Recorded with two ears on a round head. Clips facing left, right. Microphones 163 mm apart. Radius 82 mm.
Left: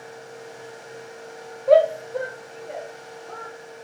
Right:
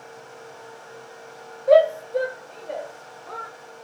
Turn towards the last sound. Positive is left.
turn(degrees=-60)  # may be behind; listen again after turning